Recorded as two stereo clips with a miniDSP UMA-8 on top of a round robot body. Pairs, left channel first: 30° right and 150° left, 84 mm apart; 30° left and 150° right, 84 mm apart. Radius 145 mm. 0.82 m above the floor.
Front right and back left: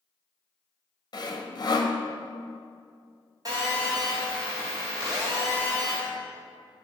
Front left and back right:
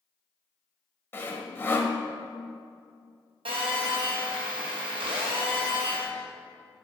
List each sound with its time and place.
1.1 s sawing: 25° right, 1.0 m
3.5 s a phone buzzing: 165° right, 0.8 m